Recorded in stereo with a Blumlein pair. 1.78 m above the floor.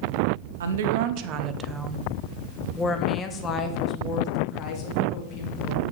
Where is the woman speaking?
65° right, 0.9 m; by 5.8 s 40° left, 3 m.